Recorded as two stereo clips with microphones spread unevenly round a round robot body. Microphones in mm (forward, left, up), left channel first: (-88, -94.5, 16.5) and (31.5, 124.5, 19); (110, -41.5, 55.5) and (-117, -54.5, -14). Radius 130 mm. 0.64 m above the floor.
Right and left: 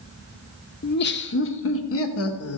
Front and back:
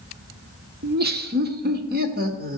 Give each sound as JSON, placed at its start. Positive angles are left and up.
{"t": 0.8, "sound": "laughter", "azimuth_deg": -165, "distance_m": 1.4}